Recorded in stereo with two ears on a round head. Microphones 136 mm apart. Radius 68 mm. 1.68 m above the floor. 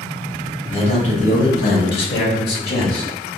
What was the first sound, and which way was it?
A man speaking, 40° left (ahead or behind).